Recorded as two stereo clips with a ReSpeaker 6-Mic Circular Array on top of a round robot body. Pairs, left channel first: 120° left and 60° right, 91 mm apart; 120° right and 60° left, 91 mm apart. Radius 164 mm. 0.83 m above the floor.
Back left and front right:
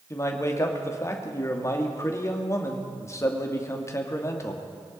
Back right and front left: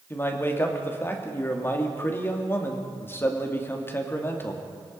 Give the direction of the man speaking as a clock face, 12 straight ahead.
6 o'clock.